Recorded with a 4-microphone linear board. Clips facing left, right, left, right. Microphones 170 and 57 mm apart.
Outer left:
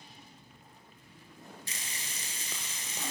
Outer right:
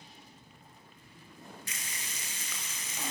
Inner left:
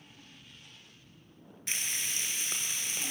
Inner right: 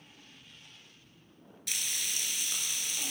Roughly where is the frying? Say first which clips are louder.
Even, inner left 1 dB; left.